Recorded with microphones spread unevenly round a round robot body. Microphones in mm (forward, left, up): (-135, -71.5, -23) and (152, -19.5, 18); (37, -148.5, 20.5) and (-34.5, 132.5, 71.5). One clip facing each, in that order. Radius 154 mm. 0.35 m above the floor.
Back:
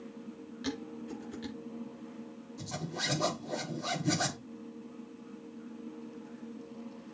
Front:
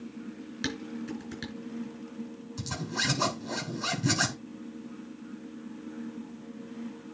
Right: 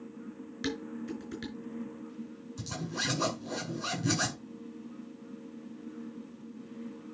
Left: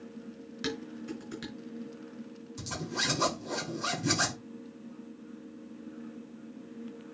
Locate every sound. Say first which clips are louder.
0.6 s dishes clattering: front 2 dB, right 1 dB; 15° left, 4.5 m
2.6 s a zipper: front 4 dB, left 1 dB; 20° left, 5.5 m